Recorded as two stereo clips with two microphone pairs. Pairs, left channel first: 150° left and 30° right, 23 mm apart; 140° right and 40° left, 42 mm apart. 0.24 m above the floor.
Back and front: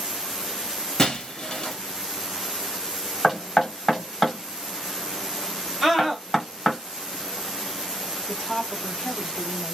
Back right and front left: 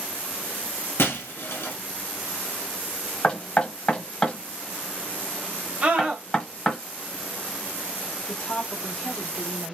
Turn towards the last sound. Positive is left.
turn(degrees=-170)